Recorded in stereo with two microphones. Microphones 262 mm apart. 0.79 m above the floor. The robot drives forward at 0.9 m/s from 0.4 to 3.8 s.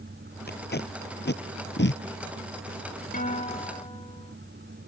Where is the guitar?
30° left (ahead or behind); by 4.3 s 20° left (ahead or behind).